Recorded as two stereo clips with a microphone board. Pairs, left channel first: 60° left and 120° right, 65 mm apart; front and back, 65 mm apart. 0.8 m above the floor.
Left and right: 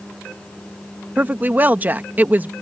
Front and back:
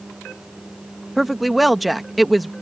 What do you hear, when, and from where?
1.2 s a woman speaking: 90° right